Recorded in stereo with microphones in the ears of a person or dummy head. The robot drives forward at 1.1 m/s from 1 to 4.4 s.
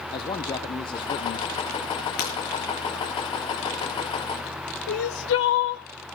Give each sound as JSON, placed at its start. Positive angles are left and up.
{"t": 0.1, "sound": "a man speaking", "side_deg": 25, "distance_m": 0.9}
{"t": 2.2, "sound": "breaking glass", "side_deg": 50, "distance_m": 5.0}
{"t": 4.9, "sound": "crying", "side_deg": 55, "distance_m": 0.9}